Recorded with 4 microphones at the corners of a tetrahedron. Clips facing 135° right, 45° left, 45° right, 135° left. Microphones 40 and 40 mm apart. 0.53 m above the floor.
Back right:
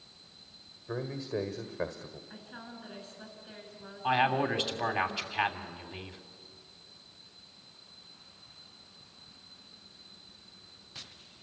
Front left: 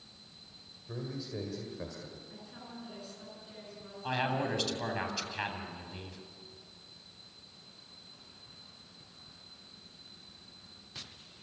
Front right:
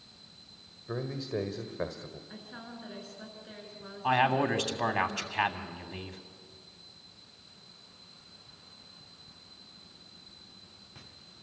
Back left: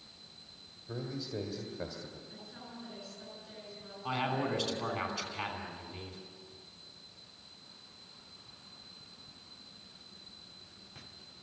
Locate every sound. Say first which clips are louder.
0.9 s a man speaking: back right 5 dB, front right 5 dB; 90° right, 1.7 m
2.3 s a woman speaking: back right 2 dB, front right 3 dB; 80° right, 7.5 m
4.0 s a man speaking: back right 5 dB, front right 8 dB; 70° right, 3 m